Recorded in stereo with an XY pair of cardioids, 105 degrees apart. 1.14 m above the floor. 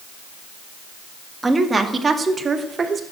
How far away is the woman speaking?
About 1.9 m.